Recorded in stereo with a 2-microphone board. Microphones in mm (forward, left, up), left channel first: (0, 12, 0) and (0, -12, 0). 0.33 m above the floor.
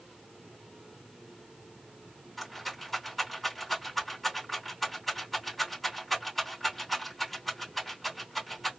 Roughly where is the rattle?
Centre.